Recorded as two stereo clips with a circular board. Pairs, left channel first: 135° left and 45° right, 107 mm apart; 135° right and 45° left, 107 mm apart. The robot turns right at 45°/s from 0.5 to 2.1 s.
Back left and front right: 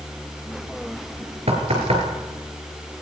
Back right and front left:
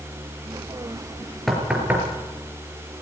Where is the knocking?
45° right, 4 m; by 2.0 s 20° right, 4 m.